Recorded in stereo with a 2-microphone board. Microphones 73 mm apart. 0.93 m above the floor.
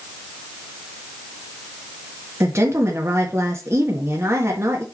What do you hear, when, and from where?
2.4 s a woman speaking: 40° right (ahead or behind), 1.4 m